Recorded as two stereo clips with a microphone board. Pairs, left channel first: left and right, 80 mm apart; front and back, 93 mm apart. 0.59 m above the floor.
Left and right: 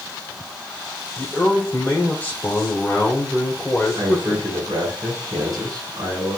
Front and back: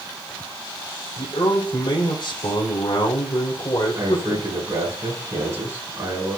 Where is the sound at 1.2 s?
20° left, 2 m.